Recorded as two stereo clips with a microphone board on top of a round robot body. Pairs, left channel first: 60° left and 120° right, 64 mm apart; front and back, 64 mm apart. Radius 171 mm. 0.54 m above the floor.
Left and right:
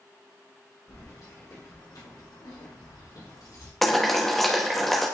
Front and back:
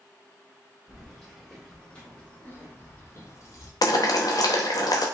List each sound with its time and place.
0.9 s keys jangling: 90° left, 2.5 m; by 3.7 s 30° left, 1.5 m
3.8 s boiling: 25° right, 0.8 m